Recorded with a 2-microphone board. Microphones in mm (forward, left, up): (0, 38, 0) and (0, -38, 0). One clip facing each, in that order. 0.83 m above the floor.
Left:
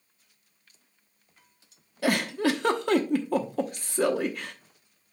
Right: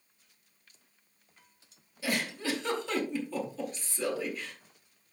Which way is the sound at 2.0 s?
65° left (ahead or behind).